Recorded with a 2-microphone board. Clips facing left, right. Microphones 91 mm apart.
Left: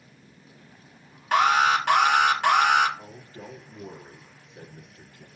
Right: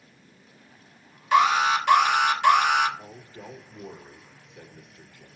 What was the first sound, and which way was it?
An alarm, 50° left (ahead or behind).